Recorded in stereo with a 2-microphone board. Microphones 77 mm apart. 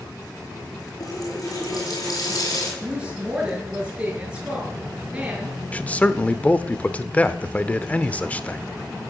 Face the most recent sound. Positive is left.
turn(degrees=20)  # may be behind; listen again after turning